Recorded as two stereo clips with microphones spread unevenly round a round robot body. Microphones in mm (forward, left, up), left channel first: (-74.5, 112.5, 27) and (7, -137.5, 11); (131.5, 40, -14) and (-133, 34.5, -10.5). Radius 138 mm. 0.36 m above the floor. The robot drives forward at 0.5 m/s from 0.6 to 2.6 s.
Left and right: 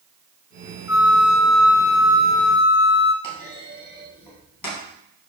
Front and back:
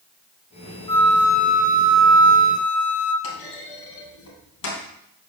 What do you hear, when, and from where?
0.9 s a flute: 70° left, 0.5 m; by 3.1 s 155° left, 0.9 m
3.2 s a clunk: 35° left, 2.5 m